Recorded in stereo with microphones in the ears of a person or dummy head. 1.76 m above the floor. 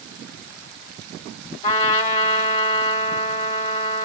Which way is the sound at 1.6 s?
35° left (ahead or behind).